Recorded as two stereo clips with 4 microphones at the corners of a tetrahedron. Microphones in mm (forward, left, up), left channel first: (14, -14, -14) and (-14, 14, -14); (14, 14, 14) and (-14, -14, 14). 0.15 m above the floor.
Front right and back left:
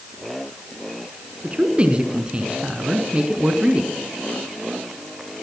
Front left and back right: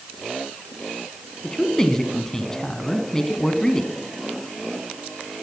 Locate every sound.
1.4 s a man speaking: 105° left, 1.1 m